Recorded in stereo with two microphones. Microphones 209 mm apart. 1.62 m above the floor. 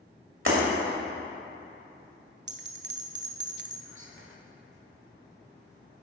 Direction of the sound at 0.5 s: 70° right (ahead or behind).